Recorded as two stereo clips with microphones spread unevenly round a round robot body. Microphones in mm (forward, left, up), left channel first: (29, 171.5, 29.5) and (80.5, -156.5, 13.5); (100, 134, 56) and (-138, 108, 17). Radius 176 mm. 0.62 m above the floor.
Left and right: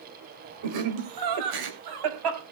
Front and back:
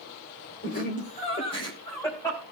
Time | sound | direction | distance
0.6 | laughter | 55° right | 3 m